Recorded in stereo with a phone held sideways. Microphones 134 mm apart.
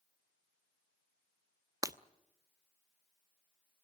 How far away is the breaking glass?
About 0.8 m.